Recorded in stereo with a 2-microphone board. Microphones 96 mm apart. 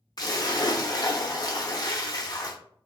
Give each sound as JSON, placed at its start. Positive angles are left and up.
{"t": 0.2, "sound": "a splash", "side_deg": 40, "distance_m": 0.6}